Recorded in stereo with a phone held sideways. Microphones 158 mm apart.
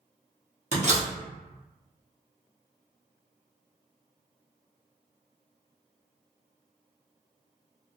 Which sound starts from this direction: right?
A door slam, at 0.7 s.